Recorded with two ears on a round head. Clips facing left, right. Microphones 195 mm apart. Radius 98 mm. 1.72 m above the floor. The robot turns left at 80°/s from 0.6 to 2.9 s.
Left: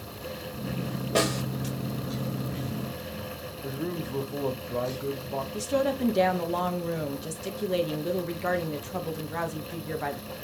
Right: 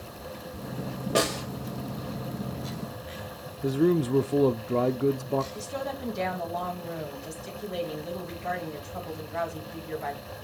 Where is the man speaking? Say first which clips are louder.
Right 10 dB; 50° right (ahead or behind), 0.8 m.